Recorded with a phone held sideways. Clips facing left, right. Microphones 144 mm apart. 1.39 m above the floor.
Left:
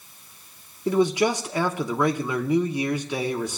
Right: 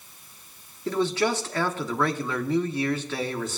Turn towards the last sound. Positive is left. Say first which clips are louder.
# left 4 dB
turn(degrees=15)  # may be behind; listen again after turning